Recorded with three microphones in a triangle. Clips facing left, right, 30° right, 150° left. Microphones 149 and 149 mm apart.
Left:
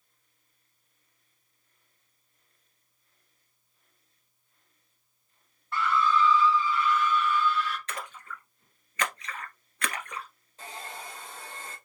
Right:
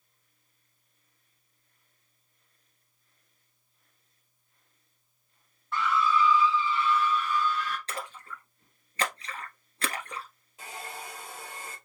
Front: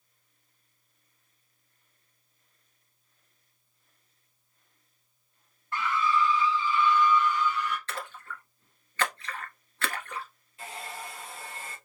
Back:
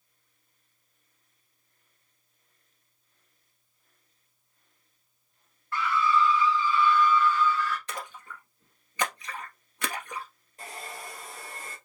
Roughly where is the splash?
Behind right.